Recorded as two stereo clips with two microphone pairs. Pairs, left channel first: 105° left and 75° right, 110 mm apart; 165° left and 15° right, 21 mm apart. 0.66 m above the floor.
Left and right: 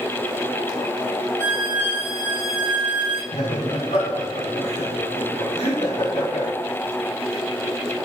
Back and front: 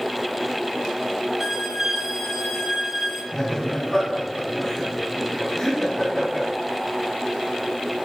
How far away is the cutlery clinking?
I don't hear cutlery clinking.